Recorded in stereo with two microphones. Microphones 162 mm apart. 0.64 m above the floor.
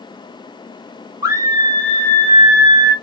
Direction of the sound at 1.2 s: 20° right (ahead or behind).